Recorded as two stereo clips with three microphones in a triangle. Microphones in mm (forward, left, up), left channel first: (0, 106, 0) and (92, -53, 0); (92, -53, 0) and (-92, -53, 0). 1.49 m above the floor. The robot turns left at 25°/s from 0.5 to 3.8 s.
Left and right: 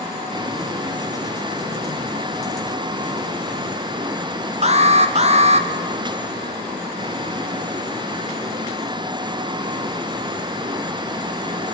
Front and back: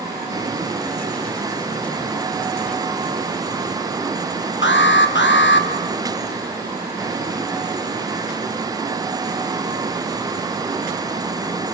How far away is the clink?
I don't hear a clink.